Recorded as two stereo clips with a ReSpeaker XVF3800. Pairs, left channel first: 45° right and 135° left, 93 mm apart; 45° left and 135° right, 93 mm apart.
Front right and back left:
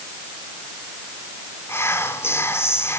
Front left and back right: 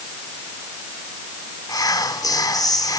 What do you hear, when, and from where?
1.7 s whispering: 10° left, 1.3 m